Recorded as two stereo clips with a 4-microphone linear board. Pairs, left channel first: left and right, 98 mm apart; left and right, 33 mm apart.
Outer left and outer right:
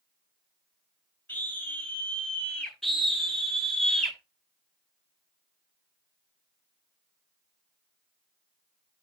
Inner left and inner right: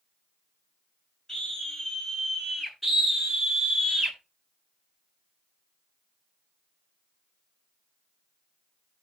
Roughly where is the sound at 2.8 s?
Centre.